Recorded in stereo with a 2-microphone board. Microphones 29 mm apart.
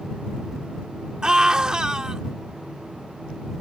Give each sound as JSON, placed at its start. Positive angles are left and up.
{"t": 1.2, "sound": "a scream", "side_deg": -30}